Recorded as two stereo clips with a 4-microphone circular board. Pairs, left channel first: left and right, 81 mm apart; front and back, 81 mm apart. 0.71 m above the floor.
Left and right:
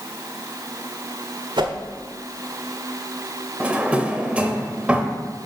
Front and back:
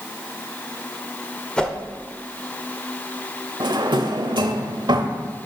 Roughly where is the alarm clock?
I don't hear an alarm clock.